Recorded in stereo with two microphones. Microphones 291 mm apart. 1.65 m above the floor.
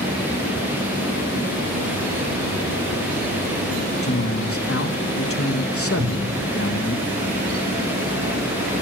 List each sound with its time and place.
4.0 s a man speaking: 50° left (ahead or behind), 1.6 m
6.0 s a cupboard door: 65° right (ahead or behind), 9.5 m